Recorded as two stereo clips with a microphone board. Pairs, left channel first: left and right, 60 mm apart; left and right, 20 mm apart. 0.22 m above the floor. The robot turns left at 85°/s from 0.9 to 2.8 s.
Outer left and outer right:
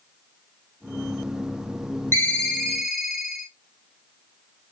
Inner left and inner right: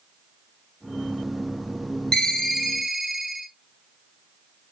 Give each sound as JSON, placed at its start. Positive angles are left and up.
{"t": 2.1, "sound": "a ringtone", "azimuth_deg": 50, "distance_m": 0.8}